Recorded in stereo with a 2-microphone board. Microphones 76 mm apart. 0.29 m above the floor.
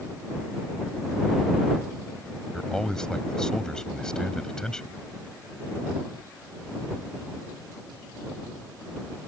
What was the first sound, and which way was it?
A man speaking, 10° left (ahead or behind).